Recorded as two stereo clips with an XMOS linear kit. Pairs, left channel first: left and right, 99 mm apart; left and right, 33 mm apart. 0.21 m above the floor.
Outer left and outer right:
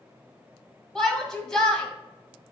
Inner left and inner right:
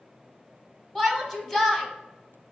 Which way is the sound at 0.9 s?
5° left (ahead or behind).